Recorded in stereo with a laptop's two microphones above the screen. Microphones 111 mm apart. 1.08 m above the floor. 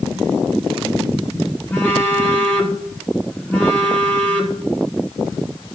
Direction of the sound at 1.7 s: 15° left (ahead or behind).